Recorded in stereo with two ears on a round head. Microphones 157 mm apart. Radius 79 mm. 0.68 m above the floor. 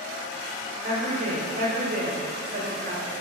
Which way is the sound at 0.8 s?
50° right (ahead or behind).